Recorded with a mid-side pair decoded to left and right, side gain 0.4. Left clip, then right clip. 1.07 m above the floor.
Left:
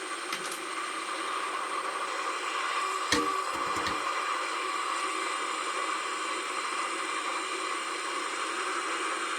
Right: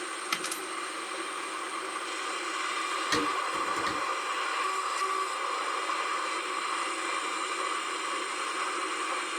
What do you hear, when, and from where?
0.3 s a dropped coin: 50° right, 1.1 m
3.1 s dishes clattering: 50° left, 3 m